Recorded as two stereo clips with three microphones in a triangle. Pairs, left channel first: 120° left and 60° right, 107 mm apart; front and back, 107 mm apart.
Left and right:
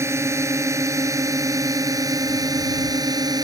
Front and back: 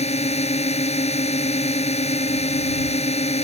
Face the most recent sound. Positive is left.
turn(degrees=-10)